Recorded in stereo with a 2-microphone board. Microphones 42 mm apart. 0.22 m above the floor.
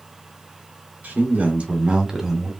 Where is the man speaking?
50° right (ahead or behind), 2.5 m; by 2.5 s centre (ahead or behind), 1.8 m.